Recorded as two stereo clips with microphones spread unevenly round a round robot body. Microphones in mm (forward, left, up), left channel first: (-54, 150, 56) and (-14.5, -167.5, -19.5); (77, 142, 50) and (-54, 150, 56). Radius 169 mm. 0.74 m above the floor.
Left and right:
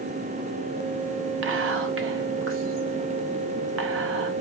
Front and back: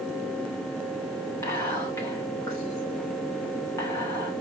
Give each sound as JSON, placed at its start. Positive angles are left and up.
{"t": 1.4, "sound": "whispering", "azimuth_deg": -65, "distance_m": 0.6}